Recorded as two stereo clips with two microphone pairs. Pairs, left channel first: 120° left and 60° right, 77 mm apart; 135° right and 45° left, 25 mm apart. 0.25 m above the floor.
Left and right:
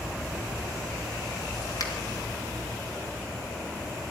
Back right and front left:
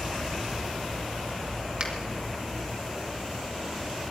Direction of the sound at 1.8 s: 90° left.